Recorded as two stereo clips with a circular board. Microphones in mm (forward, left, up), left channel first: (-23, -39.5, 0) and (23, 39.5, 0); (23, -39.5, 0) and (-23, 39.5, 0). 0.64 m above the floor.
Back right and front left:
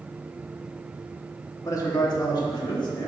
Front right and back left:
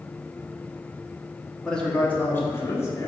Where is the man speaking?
140° right, 1.1 m; by 3.1 s 105° right, 1.5 m.